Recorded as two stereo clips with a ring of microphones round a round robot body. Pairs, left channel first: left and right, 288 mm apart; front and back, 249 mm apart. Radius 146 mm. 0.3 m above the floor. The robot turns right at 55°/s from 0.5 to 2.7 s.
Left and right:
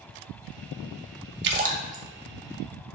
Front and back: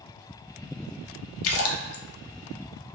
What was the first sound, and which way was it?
A splash, 40° right.